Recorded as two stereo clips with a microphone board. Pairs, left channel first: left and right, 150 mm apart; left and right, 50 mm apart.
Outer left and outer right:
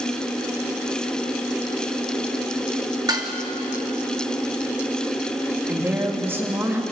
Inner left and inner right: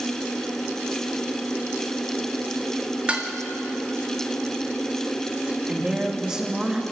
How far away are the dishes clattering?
About 1.9 m.